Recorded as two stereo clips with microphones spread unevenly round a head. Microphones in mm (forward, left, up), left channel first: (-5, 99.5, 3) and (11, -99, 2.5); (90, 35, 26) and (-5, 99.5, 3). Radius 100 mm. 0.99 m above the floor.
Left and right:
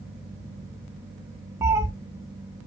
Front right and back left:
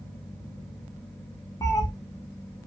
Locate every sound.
1.6 s a cat meowing: 15° right, 0.7 m